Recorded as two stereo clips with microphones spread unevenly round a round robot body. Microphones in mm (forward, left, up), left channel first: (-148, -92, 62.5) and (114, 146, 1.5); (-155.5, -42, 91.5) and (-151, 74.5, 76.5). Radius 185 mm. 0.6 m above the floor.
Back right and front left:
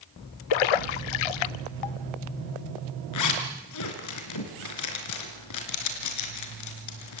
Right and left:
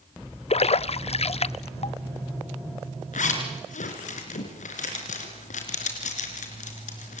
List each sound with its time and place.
0.5 s a splash: 130° right, 0.8 m
3.1 s a zipper: 95° right, 3.5 m